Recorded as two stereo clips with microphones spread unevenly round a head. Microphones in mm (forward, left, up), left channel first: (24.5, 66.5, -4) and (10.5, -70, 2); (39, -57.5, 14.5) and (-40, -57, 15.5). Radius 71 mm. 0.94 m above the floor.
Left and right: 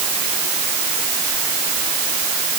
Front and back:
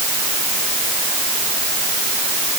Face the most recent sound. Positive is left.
No sound to turn to.